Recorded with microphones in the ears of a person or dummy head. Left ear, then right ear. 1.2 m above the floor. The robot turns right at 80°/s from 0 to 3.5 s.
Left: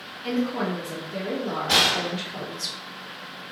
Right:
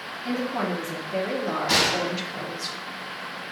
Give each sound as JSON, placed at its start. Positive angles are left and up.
{"t": 0.2, "sound": "a woman speaking", "azimuth_deg": 165, "distance_m": 0.7}
{"t": 1.7, "sound": "a gunshot", "azimuth_deg": -125, "distance_m": 1.5}